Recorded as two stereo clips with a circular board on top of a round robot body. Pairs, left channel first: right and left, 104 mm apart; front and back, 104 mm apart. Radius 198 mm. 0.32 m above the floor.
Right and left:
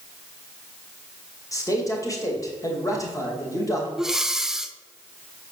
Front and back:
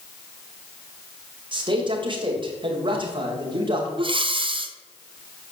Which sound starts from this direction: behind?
Breathing, at 4.0 s.